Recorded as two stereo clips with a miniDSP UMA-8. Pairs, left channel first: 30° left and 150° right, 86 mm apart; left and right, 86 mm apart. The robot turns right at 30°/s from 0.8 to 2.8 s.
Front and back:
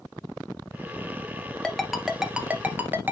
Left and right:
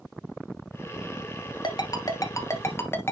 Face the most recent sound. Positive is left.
turn(degrees=145)